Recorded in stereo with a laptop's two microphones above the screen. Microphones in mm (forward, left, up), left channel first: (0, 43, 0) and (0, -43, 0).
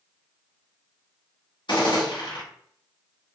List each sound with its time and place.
1.7 s a gunshot: 65° left (ahead or behind), 1.3 m